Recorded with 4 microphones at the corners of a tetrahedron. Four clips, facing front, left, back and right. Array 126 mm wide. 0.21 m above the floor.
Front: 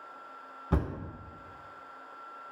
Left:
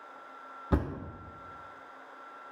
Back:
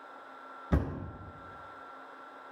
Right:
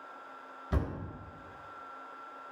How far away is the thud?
About 0.9 m.